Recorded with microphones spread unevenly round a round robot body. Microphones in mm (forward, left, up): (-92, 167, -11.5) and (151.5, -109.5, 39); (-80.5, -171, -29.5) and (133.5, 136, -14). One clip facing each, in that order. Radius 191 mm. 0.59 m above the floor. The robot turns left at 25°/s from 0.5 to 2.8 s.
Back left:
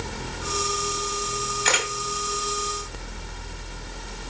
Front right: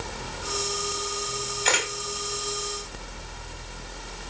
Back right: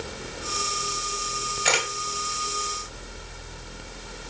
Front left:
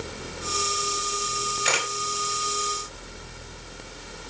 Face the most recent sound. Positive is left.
turn(degrees=165)